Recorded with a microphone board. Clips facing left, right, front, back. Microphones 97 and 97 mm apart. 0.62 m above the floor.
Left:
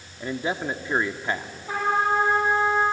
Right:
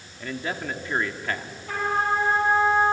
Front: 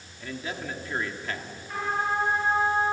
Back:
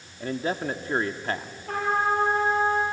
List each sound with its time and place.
0.2 s a man speaking: 150° left, 1.2 m
1.7 s a trumpet: 165° left, 9 m